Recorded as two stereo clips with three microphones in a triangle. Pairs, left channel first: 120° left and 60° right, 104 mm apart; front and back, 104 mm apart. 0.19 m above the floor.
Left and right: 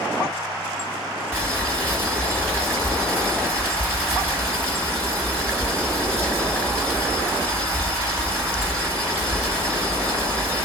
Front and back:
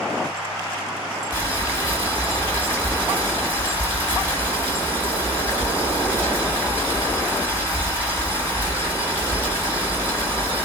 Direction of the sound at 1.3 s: 120° right.